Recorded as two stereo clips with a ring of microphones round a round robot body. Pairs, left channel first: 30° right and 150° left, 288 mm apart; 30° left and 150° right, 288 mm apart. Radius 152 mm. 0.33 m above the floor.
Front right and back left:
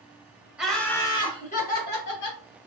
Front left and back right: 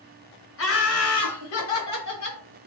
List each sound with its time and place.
0.6 s laughter: 65° left, 1.5 m; by 2.4 s 15° left, 2.0 m